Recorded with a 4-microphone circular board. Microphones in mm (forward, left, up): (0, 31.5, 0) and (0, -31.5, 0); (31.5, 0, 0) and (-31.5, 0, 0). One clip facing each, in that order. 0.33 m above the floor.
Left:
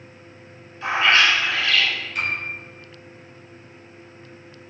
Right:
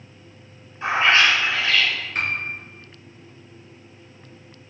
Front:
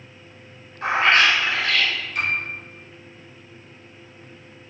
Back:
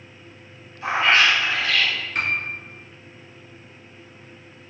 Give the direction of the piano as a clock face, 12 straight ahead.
5 o'clock.